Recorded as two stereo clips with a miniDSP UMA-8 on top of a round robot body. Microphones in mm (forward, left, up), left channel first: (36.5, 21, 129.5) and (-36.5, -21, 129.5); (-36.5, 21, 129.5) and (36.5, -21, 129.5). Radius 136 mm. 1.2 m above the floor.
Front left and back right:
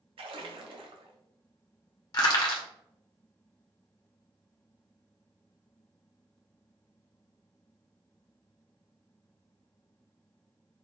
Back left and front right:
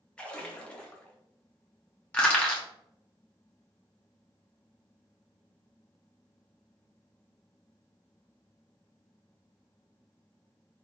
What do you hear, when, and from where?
0.2 s a splash: 130° right, 0.5 m
2.1 s crushing: 75° left, 0.6 m